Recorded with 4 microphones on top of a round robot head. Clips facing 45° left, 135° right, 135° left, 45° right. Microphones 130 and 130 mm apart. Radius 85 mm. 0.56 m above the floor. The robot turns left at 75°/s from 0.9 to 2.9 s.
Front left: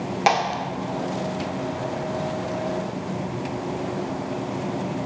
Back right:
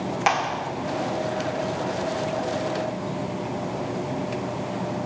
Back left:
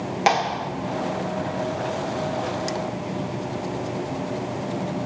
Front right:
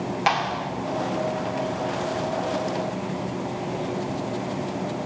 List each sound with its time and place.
0.3 s a clap: 95° left, 1.3 m